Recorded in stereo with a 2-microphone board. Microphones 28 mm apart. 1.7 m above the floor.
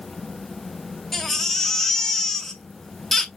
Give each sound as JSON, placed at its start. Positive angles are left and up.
{"t": 1.1, "sound": "a baby crying", "side_deg": 10, "distance_m": 0.8}